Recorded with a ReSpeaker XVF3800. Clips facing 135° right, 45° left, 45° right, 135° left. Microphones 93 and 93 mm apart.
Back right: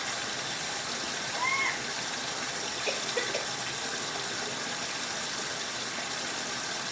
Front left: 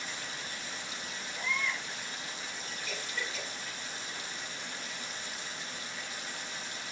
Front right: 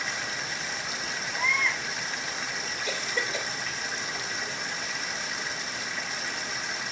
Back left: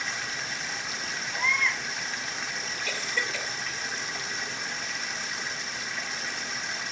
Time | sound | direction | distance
0.0 | running water | 135° right | 1.3 m
1.3 | a baby crying | 130° right | 6 m
2.9 | a cough | 115° right | 3 m